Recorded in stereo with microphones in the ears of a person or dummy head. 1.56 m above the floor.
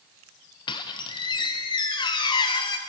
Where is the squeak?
30° left (ahead or behind), 0.9 m.